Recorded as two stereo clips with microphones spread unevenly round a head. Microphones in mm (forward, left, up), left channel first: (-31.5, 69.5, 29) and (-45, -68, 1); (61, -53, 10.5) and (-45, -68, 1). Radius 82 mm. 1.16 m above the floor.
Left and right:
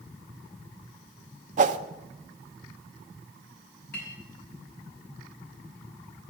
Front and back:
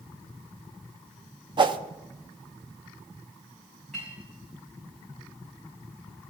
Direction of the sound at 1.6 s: 130° right.